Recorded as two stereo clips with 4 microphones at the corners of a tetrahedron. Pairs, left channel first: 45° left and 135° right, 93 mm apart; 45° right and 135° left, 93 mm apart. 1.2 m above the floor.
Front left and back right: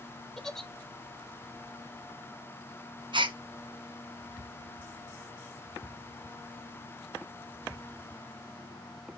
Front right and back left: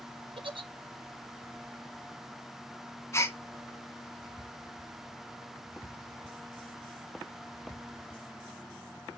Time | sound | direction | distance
0.4 | a giggle | 130° left | 0.5 m
3.1 | a gasp | 105° right | 0.6 m